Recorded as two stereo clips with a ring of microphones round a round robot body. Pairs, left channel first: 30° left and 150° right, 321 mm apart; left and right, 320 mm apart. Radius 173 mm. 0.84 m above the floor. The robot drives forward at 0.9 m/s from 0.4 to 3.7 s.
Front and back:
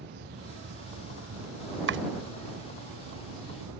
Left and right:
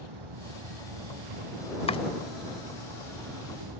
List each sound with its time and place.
0.0 s an insect: 90° right; by 3.8 s 115° right
1.9 s chopping: 160° left